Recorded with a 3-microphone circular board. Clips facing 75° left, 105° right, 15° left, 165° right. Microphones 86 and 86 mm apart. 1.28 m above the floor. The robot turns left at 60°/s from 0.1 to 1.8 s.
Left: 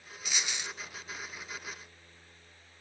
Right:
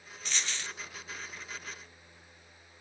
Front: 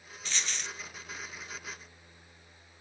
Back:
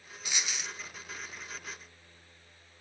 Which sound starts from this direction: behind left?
A dropped coin, at 0.2 s.